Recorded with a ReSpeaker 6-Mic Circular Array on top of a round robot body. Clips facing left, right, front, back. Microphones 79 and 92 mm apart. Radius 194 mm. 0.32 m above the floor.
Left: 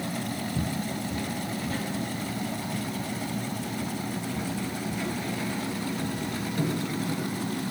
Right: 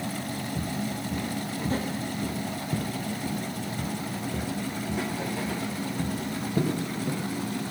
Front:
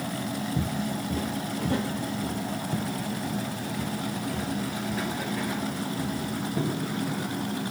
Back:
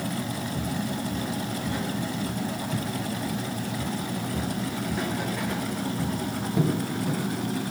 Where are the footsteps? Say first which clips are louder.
Left 1 dB, even; 15° left, 0.8 m; by 7.2 s 95° right, 3 m.